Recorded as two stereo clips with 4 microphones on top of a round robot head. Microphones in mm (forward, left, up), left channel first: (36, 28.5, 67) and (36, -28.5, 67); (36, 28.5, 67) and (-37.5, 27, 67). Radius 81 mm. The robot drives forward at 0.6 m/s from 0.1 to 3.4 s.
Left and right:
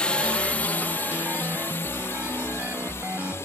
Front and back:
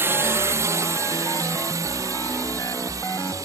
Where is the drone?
150° left; by 3.4 s 140° left.